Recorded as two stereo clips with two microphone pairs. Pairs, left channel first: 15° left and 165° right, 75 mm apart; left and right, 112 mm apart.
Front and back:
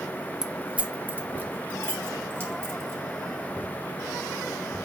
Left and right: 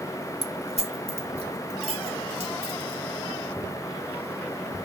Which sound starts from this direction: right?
Keys jangling, at 0.4 s.